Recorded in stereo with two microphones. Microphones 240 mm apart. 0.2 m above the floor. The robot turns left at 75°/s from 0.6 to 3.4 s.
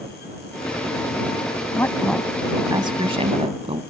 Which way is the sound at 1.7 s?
15° left (ahead or behind).